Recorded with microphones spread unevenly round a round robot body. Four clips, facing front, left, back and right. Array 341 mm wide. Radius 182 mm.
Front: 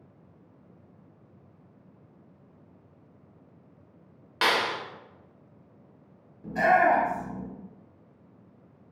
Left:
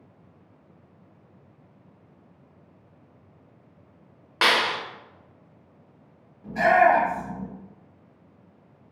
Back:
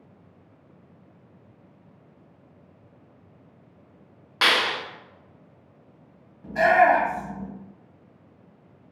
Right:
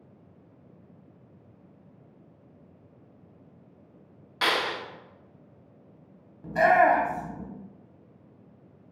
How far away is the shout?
About 0.9 m.